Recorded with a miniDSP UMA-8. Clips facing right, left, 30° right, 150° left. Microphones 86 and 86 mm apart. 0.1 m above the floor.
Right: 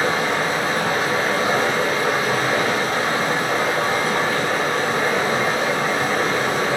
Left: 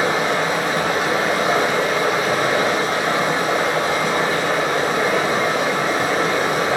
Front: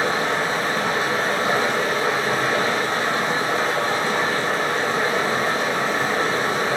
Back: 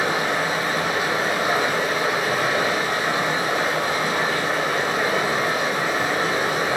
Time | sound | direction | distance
0.0 | running water | 70° left | 1.1 m